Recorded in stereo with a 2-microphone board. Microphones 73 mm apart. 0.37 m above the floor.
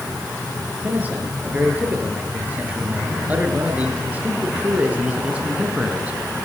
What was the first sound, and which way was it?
A man speaking, 20° right (ahead or behind).